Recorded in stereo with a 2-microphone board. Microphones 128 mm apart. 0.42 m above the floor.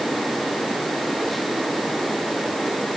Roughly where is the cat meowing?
No cat meowing in this recording.